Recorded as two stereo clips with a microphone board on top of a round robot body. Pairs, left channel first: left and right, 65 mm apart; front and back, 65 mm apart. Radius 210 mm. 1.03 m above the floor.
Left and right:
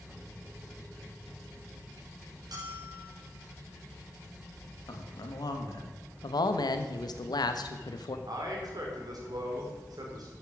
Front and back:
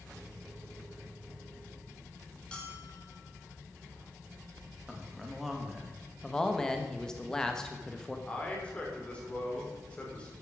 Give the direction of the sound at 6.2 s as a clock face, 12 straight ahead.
9 o'clock.